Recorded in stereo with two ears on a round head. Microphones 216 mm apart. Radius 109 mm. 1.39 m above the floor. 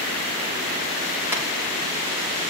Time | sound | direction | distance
1.3 | tapping | 10° right (ahead or behind) | 6.5 m